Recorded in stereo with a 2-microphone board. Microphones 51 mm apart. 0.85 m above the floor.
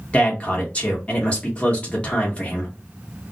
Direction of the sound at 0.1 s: 25° left (ahead or behind).